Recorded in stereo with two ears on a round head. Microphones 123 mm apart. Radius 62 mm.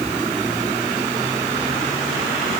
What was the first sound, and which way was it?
Only background noise.